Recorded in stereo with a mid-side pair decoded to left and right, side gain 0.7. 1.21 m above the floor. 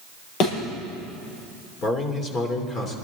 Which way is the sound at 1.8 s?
30° left.